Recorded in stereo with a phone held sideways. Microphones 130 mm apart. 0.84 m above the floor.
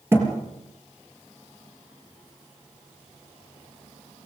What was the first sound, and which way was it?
A thud, 20° right (ahead or behind).